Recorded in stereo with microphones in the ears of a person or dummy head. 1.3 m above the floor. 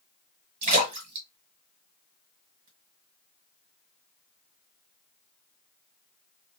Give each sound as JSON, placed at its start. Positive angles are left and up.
{"t": 0.6, "sound": "a splash", "side_deg": -40, "distance_m": 1.9}